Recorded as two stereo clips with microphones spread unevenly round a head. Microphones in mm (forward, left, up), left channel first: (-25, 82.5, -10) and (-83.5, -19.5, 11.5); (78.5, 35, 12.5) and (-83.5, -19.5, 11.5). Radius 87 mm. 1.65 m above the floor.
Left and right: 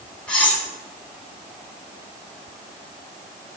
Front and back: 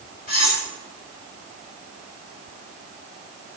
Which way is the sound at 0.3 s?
25° right.